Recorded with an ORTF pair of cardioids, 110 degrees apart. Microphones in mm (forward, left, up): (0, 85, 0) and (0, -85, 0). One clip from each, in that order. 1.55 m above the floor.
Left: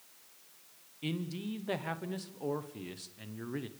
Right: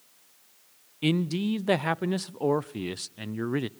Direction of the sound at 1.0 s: 55° right.